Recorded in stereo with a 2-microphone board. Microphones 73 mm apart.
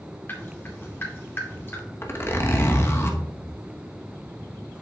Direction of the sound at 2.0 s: 35° left (ahead or behind).